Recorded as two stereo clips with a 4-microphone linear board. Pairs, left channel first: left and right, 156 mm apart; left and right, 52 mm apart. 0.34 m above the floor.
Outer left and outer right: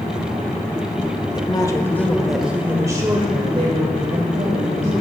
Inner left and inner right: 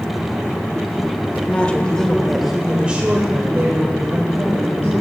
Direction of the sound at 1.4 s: 30° left (ahead or behind).